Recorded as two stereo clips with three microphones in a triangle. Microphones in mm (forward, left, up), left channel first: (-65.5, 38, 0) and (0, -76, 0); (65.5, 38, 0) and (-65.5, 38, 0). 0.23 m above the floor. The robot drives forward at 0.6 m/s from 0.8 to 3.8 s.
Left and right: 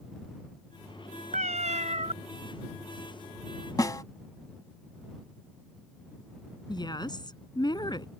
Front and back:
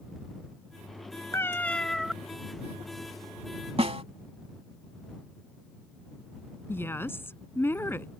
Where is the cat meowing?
70° right; by 2.1 s 95° right.